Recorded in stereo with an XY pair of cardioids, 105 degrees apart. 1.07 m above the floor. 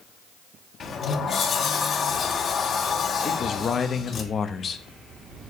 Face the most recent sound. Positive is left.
turn(degrees=45)